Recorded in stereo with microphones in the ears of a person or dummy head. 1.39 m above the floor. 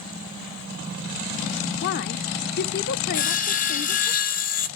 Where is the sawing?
40° left (ahead or behind), 0.7 m.